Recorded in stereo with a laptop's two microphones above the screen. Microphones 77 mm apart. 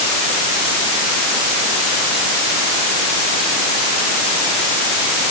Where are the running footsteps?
No running footsteps in this recording.